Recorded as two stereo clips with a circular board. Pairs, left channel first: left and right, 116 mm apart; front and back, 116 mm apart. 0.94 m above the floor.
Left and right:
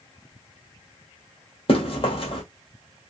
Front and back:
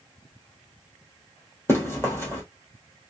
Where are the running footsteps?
65° left, 1.6 m.